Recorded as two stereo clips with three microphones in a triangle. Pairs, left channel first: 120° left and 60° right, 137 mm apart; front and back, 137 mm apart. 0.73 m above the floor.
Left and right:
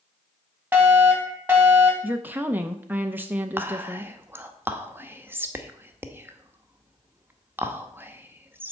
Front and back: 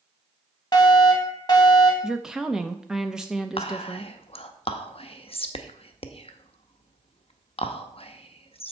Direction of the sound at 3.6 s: 5° left.